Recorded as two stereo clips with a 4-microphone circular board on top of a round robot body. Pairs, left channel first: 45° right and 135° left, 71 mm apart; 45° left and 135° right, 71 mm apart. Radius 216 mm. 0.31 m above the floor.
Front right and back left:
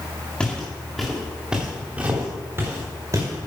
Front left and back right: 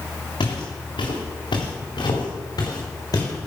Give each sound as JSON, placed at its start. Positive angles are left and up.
{"t": 0.4, "sound": "footsteps", "azimuth_deg": 30, "distance_m": 4.0}